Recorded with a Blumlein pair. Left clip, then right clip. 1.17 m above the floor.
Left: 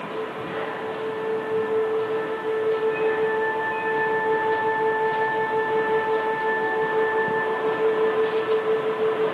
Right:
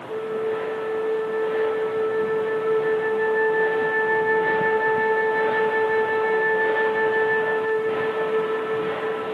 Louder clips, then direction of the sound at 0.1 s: Right 8 dB; 55° right.